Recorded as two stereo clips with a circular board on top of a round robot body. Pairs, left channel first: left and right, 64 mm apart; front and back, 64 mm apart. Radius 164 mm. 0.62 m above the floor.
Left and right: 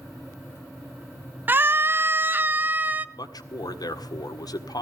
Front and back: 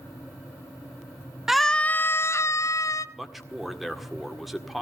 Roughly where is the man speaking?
Left.